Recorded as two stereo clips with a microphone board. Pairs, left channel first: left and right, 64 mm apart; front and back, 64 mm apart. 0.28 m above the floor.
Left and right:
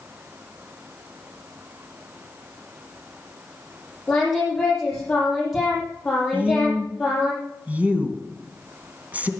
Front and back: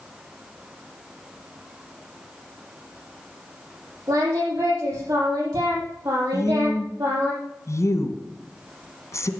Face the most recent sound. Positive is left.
turn(degrees=-30)